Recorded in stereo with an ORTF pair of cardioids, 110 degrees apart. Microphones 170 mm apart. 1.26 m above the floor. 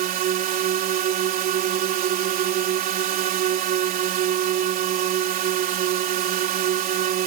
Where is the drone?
60° right.